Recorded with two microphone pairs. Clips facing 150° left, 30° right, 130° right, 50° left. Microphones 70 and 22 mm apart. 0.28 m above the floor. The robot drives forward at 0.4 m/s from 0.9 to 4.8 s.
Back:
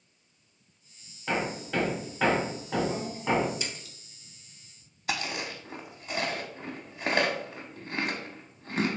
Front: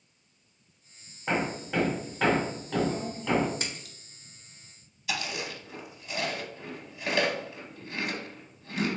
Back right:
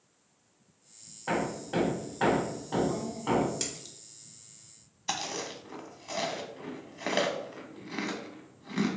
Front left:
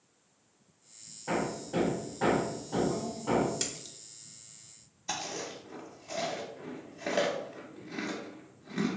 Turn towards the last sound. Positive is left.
turn(degrees=-165)